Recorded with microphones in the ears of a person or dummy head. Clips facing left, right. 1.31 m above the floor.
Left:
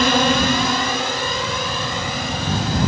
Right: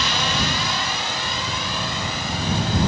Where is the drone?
45° left (ahead or behind); by 2.9 s 50° left (ahead or behind).